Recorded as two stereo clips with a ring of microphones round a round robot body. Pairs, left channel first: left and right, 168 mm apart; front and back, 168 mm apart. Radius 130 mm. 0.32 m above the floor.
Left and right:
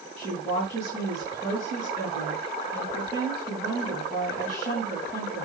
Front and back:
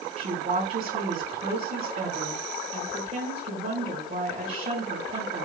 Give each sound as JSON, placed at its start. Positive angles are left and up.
{"t": 0.2, "sound": "a woman speaking", "azimuth_deg": 140, "distance_m": 3.5}